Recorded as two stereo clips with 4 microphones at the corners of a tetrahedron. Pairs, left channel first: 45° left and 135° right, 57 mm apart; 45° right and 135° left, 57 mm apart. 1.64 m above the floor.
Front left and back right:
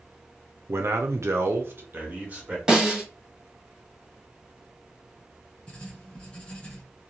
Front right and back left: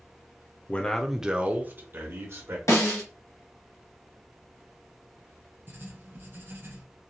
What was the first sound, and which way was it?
A man speaking, 110° right.